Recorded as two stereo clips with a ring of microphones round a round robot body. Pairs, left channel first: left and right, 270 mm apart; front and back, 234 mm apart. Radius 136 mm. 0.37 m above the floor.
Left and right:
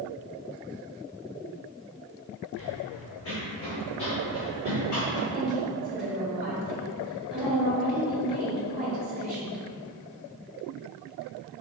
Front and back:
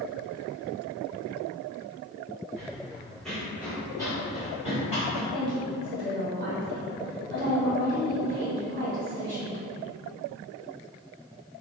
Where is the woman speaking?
175° right, 1.5 m.